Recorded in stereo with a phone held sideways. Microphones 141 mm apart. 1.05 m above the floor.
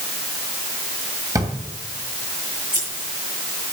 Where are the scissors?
70° right (ahead or behind), 6.5 m.